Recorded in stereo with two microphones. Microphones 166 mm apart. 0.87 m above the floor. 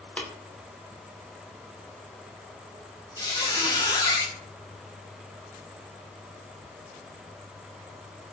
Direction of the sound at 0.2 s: 10° left (ahead or behind).